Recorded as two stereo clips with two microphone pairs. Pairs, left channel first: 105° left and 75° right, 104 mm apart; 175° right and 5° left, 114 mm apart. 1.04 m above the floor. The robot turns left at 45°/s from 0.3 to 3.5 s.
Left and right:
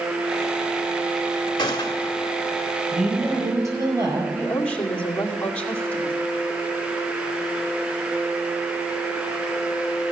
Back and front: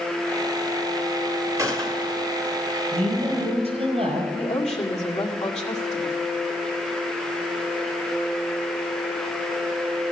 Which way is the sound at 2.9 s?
5° left.